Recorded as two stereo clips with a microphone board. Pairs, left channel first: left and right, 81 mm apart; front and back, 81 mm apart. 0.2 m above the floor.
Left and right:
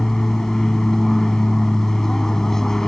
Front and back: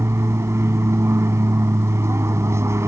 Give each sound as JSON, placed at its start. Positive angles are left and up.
{"t": 0.0, "sound": "an aircraft", "azimuth_deg": 170}